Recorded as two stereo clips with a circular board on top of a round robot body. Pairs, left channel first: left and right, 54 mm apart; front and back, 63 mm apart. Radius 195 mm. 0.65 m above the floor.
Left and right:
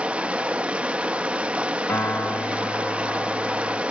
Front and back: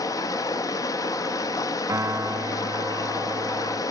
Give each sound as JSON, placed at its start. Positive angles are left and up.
{"t": 0.0, "sound": "running water", "azimuth_deg": -20, "distance_m": 0.9}
{"t": 1.9, "sound": "a piano", "azimuth_deg": 135, "distance_m": 0.7}